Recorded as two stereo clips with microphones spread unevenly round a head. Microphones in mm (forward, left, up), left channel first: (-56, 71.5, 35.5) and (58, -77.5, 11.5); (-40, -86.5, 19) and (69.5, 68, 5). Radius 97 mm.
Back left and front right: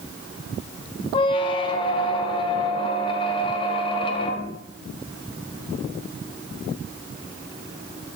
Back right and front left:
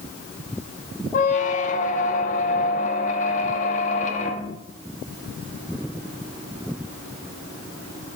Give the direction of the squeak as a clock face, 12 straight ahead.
6 o'clock.